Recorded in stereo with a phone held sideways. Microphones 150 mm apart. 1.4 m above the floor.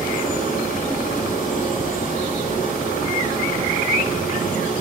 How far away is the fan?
About 3 m.